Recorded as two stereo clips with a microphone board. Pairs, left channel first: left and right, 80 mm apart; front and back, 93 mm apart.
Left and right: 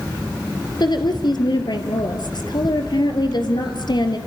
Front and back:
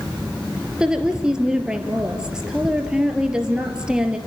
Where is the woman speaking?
100° left, 2.5 m.